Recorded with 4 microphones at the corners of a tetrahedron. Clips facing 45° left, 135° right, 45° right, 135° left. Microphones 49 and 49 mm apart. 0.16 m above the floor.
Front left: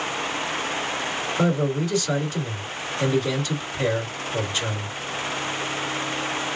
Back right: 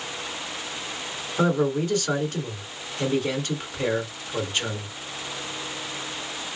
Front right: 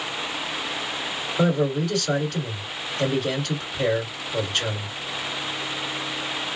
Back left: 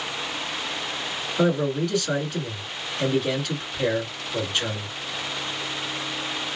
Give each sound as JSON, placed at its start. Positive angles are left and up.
{"t": 1.4, "sound": "a man speaking", "azimuth_deg": -135, "distance_m": 2.0}